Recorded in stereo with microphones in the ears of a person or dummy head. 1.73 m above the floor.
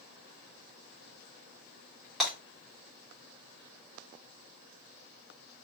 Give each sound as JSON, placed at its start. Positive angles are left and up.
{"t": 2.2, "sound": "breaking glass", "side_deg": 5, "distance_m": 2.5}